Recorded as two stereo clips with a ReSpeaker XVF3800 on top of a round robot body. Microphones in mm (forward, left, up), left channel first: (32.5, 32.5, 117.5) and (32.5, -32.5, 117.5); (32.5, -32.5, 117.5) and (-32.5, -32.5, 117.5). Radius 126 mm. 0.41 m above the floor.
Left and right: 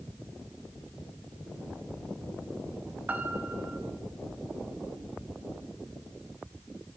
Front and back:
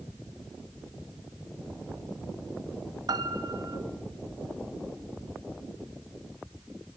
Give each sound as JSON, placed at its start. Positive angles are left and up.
{"t": 3.1, "sound": "a piano", "azimuth_deg": -160, "distance_m": 0.6}